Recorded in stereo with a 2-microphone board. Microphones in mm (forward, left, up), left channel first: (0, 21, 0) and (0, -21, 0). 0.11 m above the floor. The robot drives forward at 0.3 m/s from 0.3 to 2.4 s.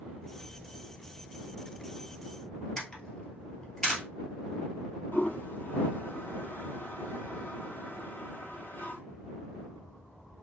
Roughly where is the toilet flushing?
Left.